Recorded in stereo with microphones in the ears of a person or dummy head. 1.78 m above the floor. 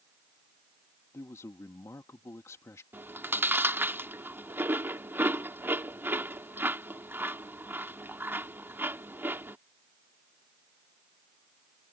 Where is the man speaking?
15° left (ahead or behind).